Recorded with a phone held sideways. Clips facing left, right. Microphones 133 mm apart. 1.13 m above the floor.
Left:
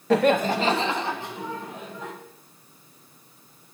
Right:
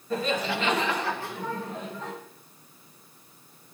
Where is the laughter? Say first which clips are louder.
Left 8 dB; 80° left, 0.7 m; by 2.1 s 10° left (ahead or behind), 3 m.